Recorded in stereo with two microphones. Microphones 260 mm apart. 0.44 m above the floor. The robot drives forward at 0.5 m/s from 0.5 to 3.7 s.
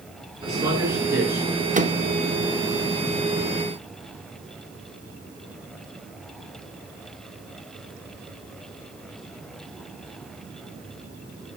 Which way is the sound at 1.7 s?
30° right (ahead or behind).